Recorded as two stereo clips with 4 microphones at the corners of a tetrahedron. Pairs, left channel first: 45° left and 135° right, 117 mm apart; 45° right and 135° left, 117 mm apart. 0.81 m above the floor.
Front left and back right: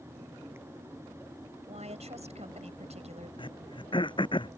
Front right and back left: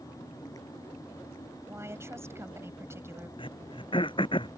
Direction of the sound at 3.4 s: Straight ahead.